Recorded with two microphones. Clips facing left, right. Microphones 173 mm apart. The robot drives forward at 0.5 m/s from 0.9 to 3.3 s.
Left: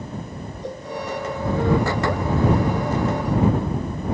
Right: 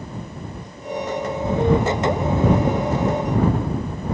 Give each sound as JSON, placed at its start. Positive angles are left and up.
{"t": 0.6, "sound": "a cowbell", "side_deg": 70}